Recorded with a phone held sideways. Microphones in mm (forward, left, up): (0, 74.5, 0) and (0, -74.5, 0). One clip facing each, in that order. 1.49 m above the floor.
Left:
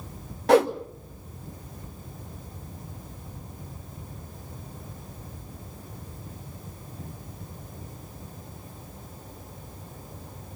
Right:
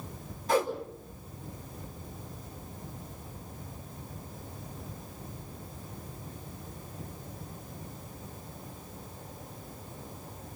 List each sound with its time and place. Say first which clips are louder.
0.5 s a whoosh: left 9 dB; 75° left (ahead or behind), 1.3 m